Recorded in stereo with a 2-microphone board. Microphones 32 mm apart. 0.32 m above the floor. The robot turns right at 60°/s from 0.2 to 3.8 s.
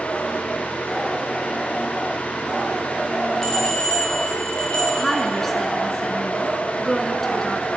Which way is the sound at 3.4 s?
15° left (ahead or behind).